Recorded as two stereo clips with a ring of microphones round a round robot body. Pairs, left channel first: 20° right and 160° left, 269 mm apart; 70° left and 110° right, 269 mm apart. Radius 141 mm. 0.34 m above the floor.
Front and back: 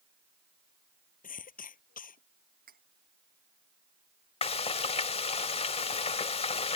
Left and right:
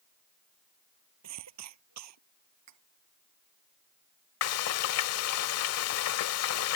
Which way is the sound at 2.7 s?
145° right.